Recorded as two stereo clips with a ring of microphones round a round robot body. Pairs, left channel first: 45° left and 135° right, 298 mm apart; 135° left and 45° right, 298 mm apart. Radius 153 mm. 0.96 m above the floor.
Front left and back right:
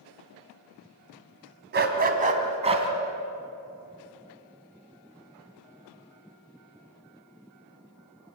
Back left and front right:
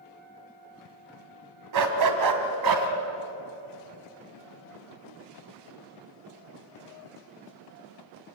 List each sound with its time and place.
1.7 s a dog barking: 75° right, 2.5 m; by 2.9 s 60° right, 3 m